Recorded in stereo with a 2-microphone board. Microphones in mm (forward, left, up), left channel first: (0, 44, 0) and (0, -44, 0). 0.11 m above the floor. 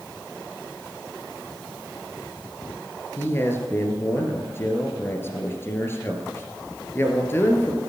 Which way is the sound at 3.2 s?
25° left (ahead or behind).